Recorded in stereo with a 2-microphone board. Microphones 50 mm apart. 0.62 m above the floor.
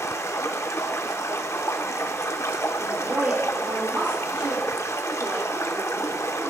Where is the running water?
70° left (ahead or behind), 0.8 m.